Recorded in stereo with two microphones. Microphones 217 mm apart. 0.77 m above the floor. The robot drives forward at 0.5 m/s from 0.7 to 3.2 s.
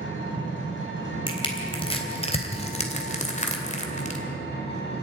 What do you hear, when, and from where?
0.0 s an engine running: 65° left (ahead or behind), 5 m; by 5.0 s 50° left (ahead or behind), 5.5 m
1.3 s crushing: 25° left (ahead or behind), 3 m; by 4.2 s 35° left (ahead or behind), 2 m